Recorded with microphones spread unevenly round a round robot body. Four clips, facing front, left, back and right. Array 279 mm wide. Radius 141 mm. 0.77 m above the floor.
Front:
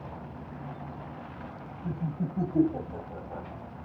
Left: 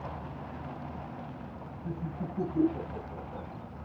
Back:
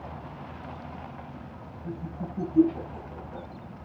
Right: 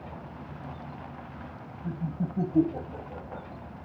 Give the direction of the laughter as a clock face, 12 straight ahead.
2 o'clock.